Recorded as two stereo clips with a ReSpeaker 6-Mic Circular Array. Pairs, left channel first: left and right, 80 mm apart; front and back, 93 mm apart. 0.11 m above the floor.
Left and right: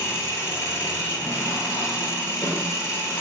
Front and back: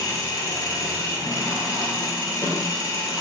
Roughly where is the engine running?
Ahead left.